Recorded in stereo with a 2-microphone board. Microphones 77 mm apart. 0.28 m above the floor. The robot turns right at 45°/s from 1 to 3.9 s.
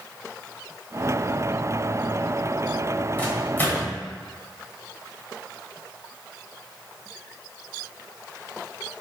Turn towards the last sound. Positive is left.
turn(degrees=25)  # may be behind; listen again after turning